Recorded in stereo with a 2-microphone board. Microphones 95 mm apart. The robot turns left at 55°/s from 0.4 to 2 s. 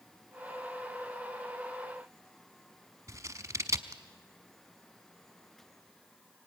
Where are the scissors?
35° right (ahead or behind), 1.0 m.